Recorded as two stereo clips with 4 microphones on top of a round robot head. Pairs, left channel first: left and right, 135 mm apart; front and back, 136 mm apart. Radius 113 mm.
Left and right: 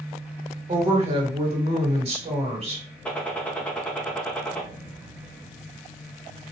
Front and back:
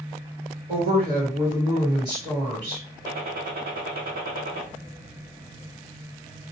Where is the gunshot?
170° left, 1.1 m.